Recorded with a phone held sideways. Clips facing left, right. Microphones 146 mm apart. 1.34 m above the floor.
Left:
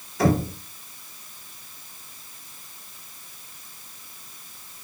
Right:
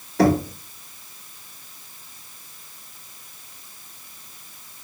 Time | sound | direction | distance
0.2 | knocking | 70° right (ahead or behind) | 1.8 m